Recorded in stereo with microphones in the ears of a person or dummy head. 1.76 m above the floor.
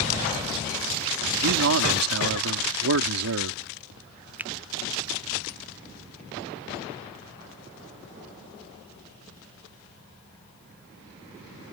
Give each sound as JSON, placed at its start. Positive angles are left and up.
{"t": 1.4, "sound": "a man speaking", "side_deg": -80}
{"t": 4.4, "sound": "a finger snap", "side_deg": -10}